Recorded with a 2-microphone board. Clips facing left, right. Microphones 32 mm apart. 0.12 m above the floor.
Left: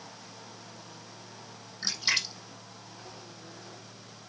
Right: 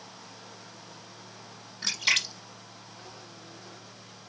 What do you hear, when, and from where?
1.8 s a splash: 70° right (ahead or behind), 4.5 m